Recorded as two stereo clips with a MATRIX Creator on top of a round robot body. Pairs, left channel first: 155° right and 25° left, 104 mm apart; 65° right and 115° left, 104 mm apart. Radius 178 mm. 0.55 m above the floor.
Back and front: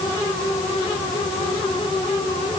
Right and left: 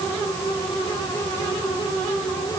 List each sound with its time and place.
Only background noise.